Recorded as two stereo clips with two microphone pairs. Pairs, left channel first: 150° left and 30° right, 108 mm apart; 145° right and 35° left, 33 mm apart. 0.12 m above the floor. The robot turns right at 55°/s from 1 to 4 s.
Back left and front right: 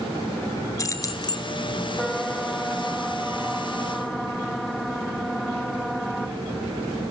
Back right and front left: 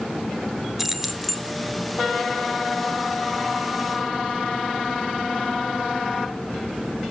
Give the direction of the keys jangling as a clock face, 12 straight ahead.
8 o'clock.